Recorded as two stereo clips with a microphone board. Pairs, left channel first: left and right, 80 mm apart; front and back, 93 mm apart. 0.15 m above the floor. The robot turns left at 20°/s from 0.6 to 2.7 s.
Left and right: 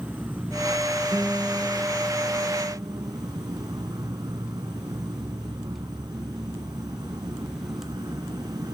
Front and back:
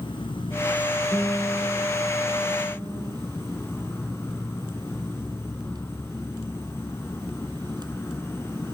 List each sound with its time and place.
0.0 s an insect: 25° right, 1.6 m; by 8.7 s 65° right, 1.6 m
1.1 s a guitar: 115° right, 5 m; by 3.1 s 145° right, 5 m